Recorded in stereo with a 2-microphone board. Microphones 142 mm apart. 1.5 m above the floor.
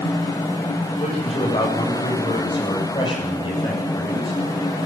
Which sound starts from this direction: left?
A man speaking, at 1.0 s.